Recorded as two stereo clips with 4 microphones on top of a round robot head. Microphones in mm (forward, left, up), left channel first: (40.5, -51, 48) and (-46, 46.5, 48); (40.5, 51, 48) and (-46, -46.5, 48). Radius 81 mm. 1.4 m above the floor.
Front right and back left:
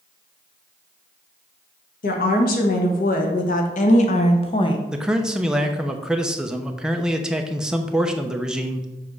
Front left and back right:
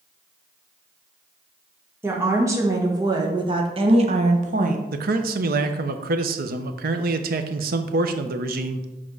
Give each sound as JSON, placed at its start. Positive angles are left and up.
{"t": 2.0, "sound": "a woman speaking", "azimuth_deg": -60, "distance_m": 1.9}
{"t": 4.9, "sound": "a man speaking", "azimuth_deg": -145, "distance_m": 0.8}